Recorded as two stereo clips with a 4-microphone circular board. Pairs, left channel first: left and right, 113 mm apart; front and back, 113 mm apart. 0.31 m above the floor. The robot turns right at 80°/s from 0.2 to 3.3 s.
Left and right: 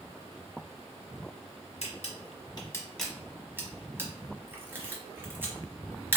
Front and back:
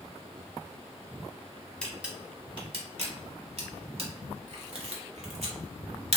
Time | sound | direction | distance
1.8 | a camera shutter | 80° left | 1.1 m